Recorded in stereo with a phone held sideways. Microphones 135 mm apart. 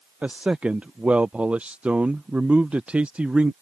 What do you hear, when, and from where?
0.2 s a man speaking: 10° right (ahead or behind)